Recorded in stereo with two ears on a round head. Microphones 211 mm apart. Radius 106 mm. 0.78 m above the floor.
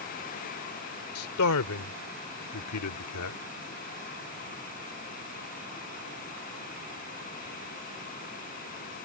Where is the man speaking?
65° left (ahead or behind); by 3.4 s 70° left (ahead or behind).